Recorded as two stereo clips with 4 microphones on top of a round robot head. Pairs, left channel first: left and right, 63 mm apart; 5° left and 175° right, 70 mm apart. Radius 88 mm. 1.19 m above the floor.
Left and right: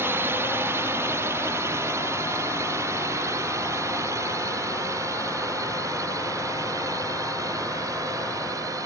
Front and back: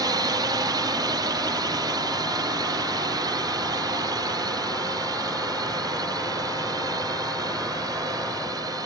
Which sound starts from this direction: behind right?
A drone, at 0.0 s.